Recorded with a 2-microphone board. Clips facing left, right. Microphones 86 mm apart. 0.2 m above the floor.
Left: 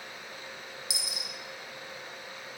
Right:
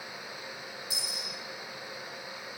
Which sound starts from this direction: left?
A dropped coin, at 0.9 s.